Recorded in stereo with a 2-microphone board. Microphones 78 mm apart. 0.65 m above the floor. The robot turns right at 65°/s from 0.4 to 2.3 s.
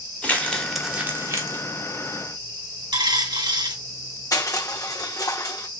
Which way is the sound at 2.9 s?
75° right (ahead or behind).